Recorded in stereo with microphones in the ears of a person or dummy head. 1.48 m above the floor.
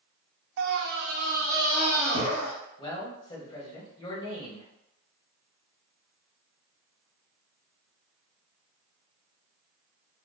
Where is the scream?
60° right (ahead or behind), 0.5 m; by 2.5 s 30° right (ahead or behind), 1.4 m.